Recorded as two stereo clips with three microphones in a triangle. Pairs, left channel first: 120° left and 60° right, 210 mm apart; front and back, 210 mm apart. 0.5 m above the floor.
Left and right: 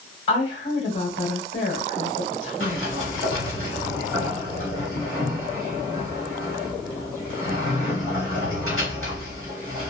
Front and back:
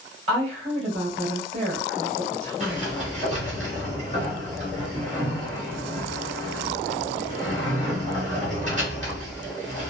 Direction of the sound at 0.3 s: 125° left.